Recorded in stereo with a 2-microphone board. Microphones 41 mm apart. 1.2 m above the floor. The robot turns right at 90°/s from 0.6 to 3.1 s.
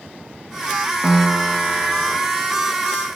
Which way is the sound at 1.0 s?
165° left.